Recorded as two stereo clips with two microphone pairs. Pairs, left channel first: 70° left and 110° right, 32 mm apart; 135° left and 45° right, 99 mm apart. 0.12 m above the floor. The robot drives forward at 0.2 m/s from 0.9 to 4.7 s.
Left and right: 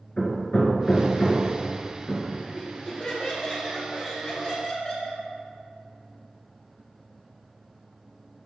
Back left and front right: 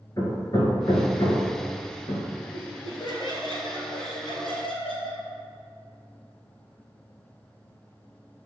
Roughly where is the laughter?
Left.